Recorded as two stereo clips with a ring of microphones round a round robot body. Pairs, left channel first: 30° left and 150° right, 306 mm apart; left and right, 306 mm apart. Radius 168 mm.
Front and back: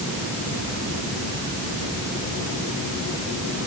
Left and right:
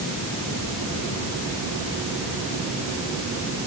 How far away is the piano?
No piano in this recording.